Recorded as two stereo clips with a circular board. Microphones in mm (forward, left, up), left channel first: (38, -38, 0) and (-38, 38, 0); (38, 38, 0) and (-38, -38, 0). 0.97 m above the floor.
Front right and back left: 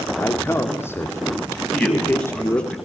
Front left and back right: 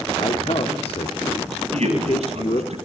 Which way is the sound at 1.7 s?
125° right.